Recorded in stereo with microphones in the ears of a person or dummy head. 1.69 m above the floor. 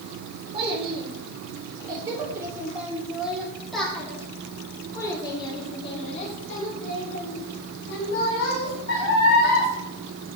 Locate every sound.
0.5 s a child speaking: 25° right (ahead or behind), 3.5 m; by 9.7 s 70° left (ahead or behind), 4 m